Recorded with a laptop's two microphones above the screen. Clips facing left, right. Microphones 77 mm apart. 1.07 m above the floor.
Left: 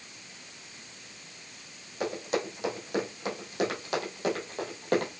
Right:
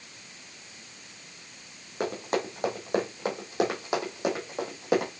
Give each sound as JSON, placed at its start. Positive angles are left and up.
{"t": 2.0, "sound": "running footsteps", "side_deg": -45, "distance_m": 2.5}